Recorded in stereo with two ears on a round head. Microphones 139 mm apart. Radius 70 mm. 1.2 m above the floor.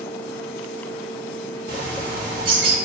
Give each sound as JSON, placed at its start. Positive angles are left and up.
{"t": 1.7, "sound": "a bird", "side_deg": -55, "distance_m": 1.2}